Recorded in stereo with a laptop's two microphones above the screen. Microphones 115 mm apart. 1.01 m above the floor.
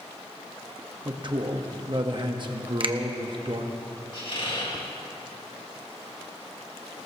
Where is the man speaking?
45° right (ahead or behind), 1.2 m.